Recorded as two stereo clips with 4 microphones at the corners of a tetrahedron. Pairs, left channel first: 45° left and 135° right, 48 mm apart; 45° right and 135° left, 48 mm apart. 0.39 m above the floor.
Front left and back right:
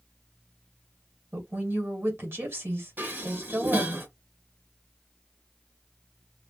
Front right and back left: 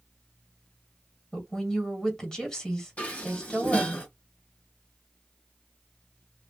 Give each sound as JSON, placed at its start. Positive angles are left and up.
{"t": 1.3, "sound": "a woman speaking", "azimuth_deg": -120, "distance_m": 1.9}
{"t": 3.0, "sound": "dishes clattering", "azimuth_deg": -100, "distance_m": 1.1}